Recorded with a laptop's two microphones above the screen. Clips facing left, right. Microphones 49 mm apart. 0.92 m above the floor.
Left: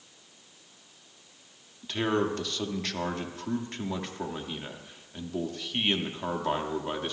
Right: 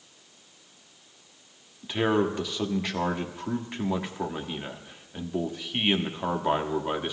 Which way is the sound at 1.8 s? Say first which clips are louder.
Right 3 dB; 10° right (ahead or behind).